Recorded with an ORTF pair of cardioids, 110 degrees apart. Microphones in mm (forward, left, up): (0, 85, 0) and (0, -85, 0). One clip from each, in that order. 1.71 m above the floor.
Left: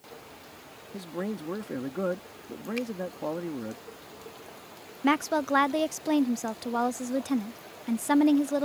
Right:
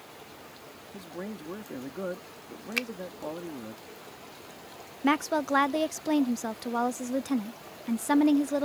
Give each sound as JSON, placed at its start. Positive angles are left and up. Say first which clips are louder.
{"t": 0.9, "sound": "a man speaking", "louder": "left 5 dB", "azimuth_deg": 30}
{"t": 2.8, "sound": "a finger snap", "louder": "right 4 dB", "azimuth_deg": -55}
{"t": 5.0, "sound": "a woman speaking", "louder": "left 1 dB", "azimuth_deg": 5}